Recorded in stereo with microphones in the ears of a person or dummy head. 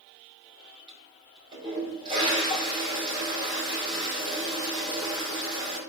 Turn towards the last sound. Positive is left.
turn(degrees=-30)  # may be behind; listen again after turning